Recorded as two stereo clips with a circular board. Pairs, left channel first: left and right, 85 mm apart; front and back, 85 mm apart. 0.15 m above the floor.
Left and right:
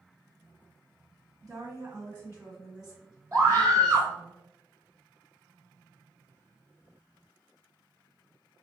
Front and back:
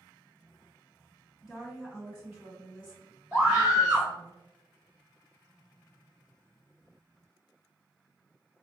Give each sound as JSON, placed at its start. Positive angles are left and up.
{"t": 1.4, "sound": "a woman speaking", "azimuth_deg": -105, "distance_m": 1.8}
{"t": 3.3, "sound": "a scream", "azimuth_deg": -130, "distance_m": 1.1}